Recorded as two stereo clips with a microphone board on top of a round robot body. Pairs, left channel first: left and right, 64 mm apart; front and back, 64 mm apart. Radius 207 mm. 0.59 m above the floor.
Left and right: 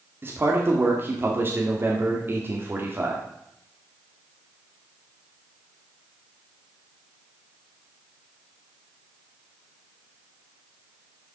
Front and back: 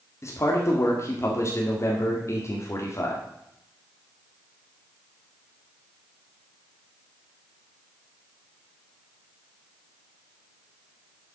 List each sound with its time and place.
0.2 s a man speaking: 40° right, 2 m